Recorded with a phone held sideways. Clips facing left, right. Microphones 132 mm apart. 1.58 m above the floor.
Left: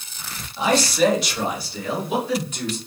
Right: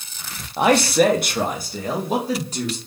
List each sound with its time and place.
0.6 s a man speaking: 60° right (ahead or behind), 0.7 m; by 2.8 s 35° right (ahead or behind), 1.6 m